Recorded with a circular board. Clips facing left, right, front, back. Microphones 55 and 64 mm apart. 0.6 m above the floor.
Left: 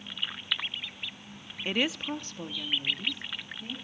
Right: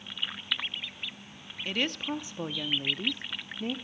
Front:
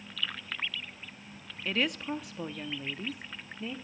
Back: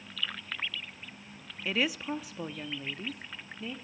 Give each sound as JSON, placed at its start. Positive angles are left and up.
{"t": 1.6, "sound": "a woman speaking", "azimuth_deg": 105, "distance_m": 0.6}